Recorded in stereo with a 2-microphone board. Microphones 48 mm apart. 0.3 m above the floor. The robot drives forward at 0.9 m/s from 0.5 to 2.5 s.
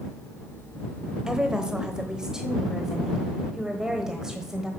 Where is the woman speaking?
15° right (ahead or behind), 1.1 m.